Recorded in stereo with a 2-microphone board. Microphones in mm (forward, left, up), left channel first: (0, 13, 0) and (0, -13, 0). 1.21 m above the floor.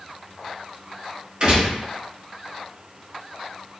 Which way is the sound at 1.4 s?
40° right (ahead or behind).